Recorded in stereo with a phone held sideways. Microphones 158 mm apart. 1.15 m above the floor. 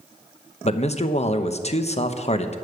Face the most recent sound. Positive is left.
turn(degrees=45)  # may be behind; listen again after turning